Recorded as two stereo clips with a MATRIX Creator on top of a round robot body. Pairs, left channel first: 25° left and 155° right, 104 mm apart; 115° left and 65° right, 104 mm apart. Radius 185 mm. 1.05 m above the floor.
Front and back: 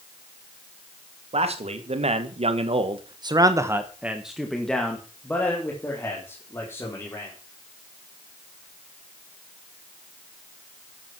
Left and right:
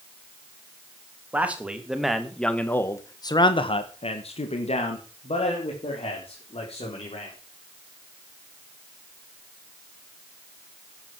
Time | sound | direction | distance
1.3 | a man speaking | 145° right | 2.5 m